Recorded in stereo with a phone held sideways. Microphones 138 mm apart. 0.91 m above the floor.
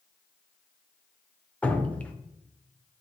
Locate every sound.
1.6 s dripping: 10° left (ahead or behind), 0.7 m